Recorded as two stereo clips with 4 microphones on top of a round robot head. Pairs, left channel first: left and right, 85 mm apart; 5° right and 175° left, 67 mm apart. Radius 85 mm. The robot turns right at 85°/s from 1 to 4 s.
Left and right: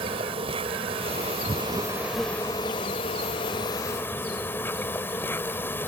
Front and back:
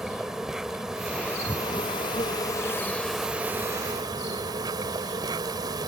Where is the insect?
100° right; by 5.9 s 155° left.